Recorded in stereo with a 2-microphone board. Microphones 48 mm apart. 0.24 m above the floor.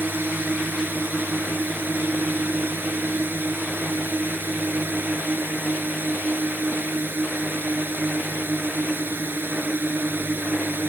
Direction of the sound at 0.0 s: 45° right (ahead or behind).